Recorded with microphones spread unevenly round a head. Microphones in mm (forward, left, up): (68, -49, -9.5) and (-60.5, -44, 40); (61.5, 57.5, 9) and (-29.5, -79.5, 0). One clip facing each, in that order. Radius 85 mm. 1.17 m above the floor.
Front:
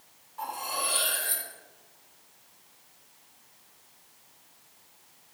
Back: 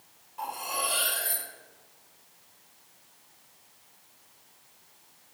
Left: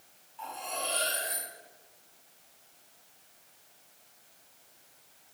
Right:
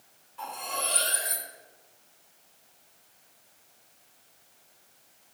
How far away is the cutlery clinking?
About 1.9 m.